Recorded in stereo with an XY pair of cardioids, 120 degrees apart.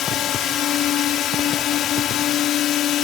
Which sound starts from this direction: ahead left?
A drone, at 0.0 s.